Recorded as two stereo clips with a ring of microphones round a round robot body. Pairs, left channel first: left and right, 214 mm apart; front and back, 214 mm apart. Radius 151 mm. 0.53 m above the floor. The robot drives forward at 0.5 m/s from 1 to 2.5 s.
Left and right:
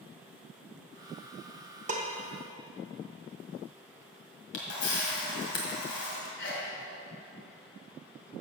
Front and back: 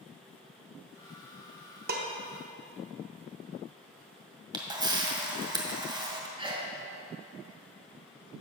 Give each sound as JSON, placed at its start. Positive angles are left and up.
{"t": 1.9, "sound": "dishes clattering", "azimuth_deg": -140, "distance_m": 0.6}
{"t": 4.5, "sound": "a camera shutter", "azimuth_deg": 110, "distance_m": 2.0}
{"t": 6.4, "sound": "a sneeze", "azimuth_deg": 115, "distance_m": 2.0}